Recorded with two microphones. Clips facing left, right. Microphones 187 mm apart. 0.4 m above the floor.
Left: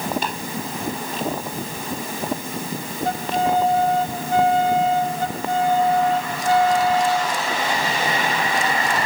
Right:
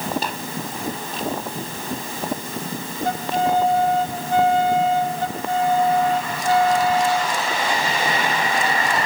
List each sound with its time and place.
0.2 s tapping: 40° right (ahead or behind), 4 m